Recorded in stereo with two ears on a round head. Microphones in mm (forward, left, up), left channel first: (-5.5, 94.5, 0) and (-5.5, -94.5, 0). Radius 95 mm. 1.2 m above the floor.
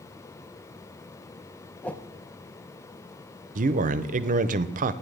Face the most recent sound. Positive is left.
turn(degrees=-40)  # may be behind; listen again after turning